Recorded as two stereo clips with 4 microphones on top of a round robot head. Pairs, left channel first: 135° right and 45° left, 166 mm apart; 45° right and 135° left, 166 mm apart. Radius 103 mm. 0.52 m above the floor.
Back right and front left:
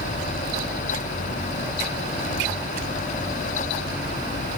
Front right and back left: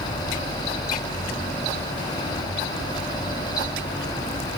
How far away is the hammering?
No hammering in this recording.